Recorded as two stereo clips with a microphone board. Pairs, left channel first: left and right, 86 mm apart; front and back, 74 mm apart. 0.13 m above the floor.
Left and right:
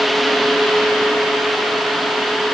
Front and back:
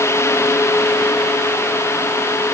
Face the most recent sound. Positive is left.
No sound to turn to.